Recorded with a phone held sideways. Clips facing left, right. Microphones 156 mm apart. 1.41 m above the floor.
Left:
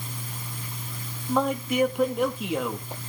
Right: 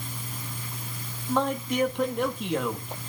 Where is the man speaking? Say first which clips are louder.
Left 1 dB; 5° left (ahead or behind), 2.5 m.